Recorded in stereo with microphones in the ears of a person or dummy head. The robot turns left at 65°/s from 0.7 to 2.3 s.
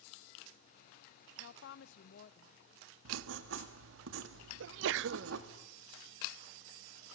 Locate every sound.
1.4 s a woman speaking: 115° left, 0.8 m; by 2.6 s 55° left, 0.8 m
3.0 s writing: 80° right, 1.8 m
4.6 s a sneeze: 75° right (ahead or behind), 0.6 m